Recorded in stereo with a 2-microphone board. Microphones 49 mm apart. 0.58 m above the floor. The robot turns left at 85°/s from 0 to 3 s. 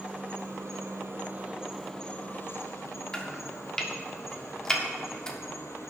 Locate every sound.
0.0 s an insect: 25° right, 1.3 m; by 5.9 s 80° left, 1.3 m
3.1 s chopping: 15° left (ahead or behind), 1.2 m